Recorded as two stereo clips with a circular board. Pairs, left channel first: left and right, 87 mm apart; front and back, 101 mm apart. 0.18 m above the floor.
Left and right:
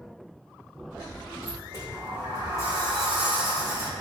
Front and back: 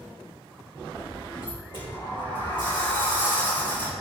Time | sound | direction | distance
1.4 | a sliding door | 40° right | 3.5 m